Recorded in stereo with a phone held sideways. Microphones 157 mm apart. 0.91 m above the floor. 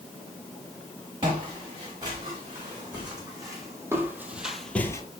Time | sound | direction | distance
1.2 | footsteps | 35° right (ahead or behind) | 6 m